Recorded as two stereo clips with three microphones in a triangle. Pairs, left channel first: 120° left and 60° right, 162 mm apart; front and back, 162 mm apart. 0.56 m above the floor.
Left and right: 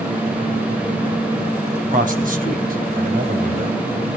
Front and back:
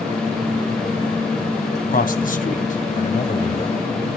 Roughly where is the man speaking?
Ahead right.